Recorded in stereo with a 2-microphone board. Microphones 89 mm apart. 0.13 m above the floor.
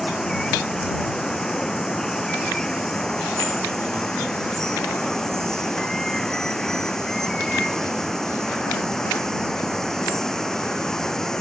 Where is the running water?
5° left (ahead or behind).